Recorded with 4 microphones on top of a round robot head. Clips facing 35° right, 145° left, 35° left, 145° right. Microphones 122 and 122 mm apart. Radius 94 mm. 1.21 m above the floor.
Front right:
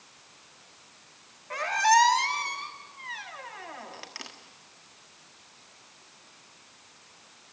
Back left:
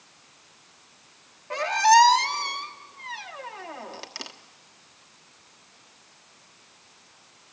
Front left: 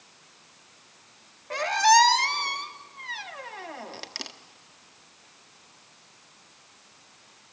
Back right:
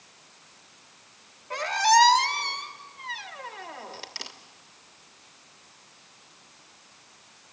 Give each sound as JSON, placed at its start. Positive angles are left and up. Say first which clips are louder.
{"t": 1.5, "sound": "a squeak", "louder": "back left 5 dB, front left 1 dB", "azimuth_deg": 80, "distance_m": 1.2}